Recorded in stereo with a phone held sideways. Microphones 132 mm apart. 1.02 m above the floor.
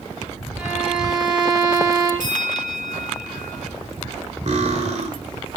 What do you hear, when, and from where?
0.6 s a violin: 10° right (ahead or behind), 5 m
2.2 s a bell: 85° right, 3 m
4.5 s cutlery clinking: 65° right (ahead or behind), 2 m